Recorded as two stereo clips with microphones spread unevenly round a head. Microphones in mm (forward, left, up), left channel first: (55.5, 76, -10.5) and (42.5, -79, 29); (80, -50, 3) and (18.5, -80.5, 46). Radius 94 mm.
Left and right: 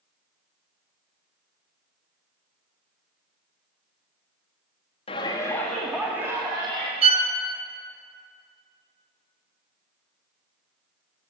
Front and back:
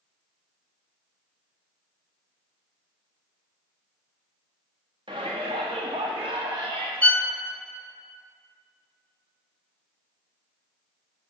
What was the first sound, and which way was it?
A shout, 145° left.